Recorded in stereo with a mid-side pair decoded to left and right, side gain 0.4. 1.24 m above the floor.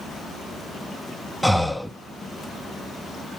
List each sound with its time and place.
1.4 s breathing: straight ahead, 1.0 m